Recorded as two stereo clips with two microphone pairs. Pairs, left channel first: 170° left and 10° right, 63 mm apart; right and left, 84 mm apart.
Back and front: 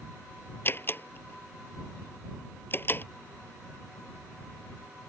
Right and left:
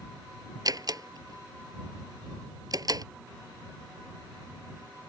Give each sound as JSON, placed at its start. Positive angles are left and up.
{"t": 0.7, "sound": "a door slam", "azimuth_deg": 125}